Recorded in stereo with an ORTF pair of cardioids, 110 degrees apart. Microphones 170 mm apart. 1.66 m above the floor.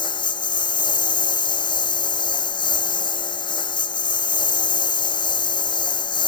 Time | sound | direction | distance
0.0 | a lawn mower | 25° left | ?